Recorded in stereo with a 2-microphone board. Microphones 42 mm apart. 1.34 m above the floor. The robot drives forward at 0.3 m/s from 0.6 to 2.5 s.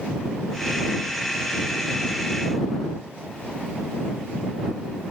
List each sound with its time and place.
Only background noise.